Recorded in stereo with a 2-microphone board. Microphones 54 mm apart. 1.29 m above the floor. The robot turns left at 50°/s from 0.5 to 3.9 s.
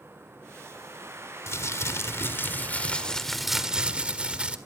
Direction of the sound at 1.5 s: 100° left.